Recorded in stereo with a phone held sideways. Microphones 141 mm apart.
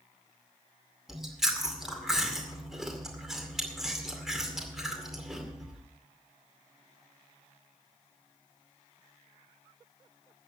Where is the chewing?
5° right (ahead or behind), 2 m.